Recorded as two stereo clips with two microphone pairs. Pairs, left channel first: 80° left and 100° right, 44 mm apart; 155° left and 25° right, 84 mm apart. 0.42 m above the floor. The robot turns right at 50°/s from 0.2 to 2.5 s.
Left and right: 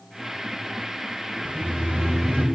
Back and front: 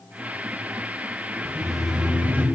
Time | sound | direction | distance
1.4 | laughter | 135° right | 1.4 m